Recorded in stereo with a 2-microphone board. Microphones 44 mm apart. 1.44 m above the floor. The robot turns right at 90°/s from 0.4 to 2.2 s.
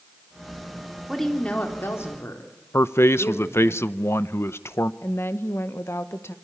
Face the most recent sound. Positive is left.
turn(degrees=80)